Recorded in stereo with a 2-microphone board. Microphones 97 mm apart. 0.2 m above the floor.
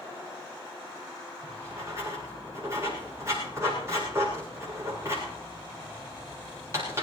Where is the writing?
30° right (ahead or behind), 8 m.